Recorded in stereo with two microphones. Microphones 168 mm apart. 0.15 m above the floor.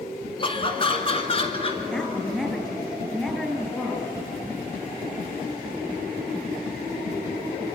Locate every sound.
0.4 s laughter: 30° left (ahead or behind), 2 m; by 1.8 s 35° left (ahead or behind), 3 m
1.9 s a woman speaking: 5° left (ahead or behind), 3 m